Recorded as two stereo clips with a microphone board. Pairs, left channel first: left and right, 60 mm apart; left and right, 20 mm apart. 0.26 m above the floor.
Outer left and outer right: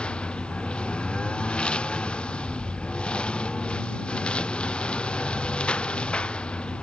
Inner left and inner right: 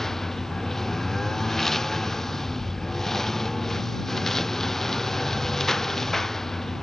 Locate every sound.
0.0 s a lawn mower: 15° left (ahead or behind)